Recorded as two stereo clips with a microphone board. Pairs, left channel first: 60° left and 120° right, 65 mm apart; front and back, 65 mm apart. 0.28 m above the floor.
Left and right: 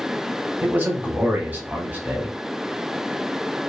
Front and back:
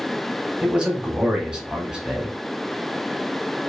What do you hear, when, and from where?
0.6 s a man speaking: 120° right, 1.0 m